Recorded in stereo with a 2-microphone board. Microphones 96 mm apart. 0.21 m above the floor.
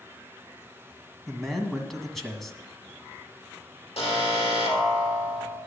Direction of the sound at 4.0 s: 75° left (ahead or behind).